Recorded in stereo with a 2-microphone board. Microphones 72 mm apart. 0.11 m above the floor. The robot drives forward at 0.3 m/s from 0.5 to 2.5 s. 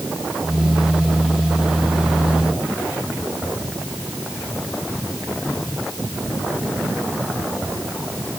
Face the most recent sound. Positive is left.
No sound to turn to.